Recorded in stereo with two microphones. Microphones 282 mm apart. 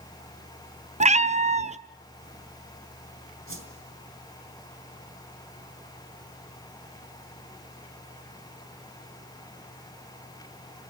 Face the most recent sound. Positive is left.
turn(degrees=-50)  # may be behind; listen again after turning